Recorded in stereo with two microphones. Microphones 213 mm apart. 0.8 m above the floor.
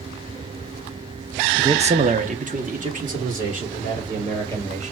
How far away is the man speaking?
About 0.5 m.